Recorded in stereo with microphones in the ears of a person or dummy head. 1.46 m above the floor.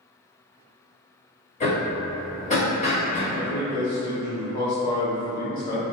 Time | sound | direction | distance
1.6 | hammering | 35° left (ahead or behind) | 1.4 m
3.3 | a man speaking | 40° left (ahead or behind) | 1.7 m